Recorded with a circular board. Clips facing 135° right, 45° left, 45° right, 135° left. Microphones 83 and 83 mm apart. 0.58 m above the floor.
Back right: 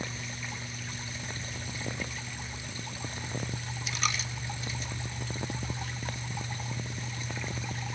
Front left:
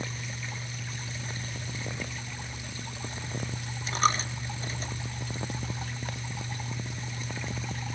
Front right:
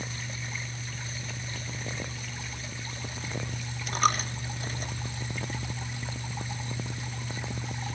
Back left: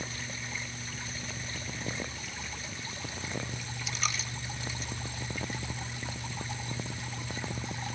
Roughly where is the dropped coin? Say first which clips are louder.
Front left 8 dB, front right 11 dB; ahead.